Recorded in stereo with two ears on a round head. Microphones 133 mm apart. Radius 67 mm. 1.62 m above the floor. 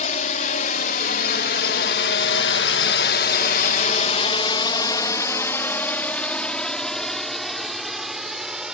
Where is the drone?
55° left (ahead or behind); by 8.7 s 5° right (ahead or behind).